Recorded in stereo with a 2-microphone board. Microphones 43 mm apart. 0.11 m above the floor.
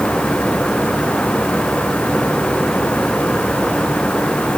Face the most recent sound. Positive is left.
No sound to turn to.